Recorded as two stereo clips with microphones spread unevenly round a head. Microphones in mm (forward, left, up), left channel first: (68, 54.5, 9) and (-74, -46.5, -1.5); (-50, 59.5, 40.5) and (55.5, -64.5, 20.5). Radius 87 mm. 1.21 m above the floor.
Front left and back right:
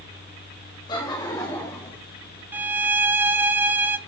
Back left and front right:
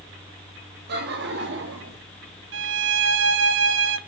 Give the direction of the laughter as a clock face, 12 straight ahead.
1 o'clock.